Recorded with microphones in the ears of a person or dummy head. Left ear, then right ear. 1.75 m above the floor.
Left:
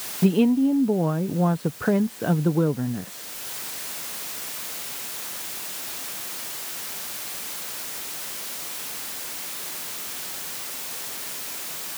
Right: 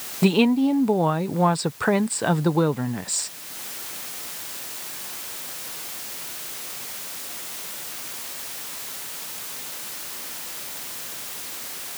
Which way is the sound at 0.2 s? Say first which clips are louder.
Right 1 dB; 30° right (ahead or behind).